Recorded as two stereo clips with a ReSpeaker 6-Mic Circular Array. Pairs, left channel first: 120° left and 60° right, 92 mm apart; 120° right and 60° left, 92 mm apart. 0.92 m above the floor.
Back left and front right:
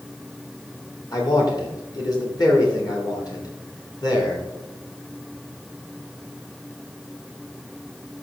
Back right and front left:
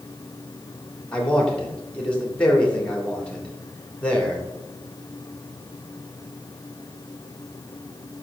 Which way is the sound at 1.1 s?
165° left.